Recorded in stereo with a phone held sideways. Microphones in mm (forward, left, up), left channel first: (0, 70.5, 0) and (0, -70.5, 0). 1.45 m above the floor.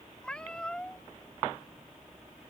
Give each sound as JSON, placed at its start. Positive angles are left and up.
{"t": 0.2, "sound": "a cat meowing", "side_deg": 5}